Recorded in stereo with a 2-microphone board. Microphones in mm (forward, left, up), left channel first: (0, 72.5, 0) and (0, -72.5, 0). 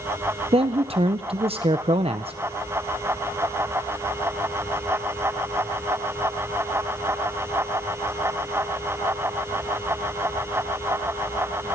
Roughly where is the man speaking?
Right.